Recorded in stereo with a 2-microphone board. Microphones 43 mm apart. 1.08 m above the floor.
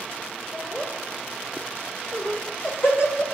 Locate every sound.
0.5 s laughter: 80° left, 4.5 m; by 3.2 s 45° left (ahead or behind), 1.7 m